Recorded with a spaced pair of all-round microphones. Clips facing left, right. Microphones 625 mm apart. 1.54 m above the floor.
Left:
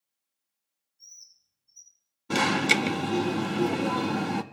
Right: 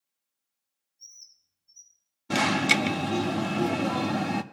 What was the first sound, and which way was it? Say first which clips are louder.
A bird: even; 70° left (ahead or behind).